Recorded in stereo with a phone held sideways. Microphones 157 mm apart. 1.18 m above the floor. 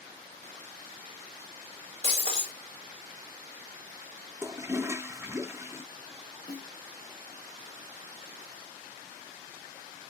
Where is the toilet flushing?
15° right (ahead or behind), 0.5 m.